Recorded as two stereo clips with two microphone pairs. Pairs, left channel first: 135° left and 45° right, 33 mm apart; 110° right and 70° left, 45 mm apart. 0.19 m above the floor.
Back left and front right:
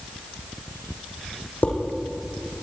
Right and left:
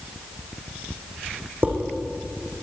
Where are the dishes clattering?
105° left, 6 m.